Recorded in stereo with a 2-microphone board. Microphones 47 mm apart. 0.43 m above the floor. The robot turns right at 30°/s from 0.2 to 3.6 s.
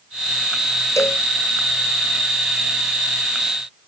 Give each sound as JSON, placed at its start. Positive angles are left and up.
{"t": 1.0, "sound": "a cowbell", "side_deg": 85}